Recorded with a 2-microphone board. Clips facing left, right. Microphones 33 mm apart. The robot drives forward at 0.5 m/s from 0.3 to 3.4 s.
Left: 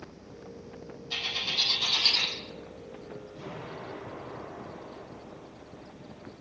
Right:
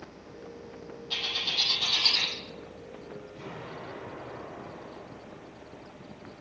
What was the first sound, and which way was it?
A bird, 45° right (ahead or behind).